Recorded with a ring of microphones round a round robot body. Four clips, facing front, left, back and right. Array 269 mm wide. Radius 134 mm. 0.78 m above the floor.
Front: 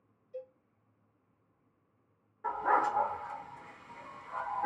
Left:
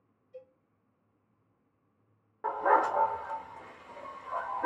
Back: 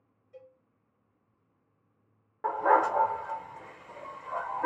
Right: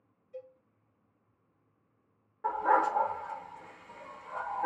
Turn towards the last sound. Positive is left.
turn(degrees=145)